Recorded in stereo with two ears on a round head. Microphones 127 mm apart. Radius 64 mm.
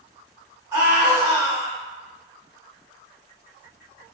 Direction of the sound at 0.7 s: 20° right (ahead or behind).